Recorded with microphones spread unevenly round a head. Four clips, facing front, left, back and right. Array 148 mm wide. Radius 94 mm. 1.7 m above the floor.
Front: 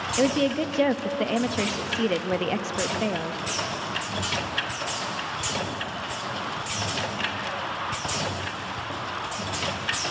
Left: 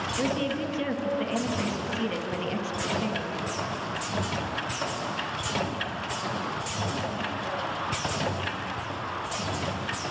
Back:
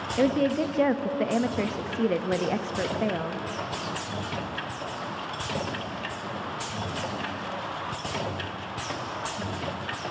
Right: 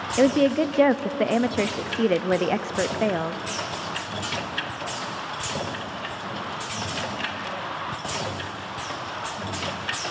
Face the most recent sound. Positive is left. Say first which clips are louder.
# right 11 dB, even
turn(degrees=-70)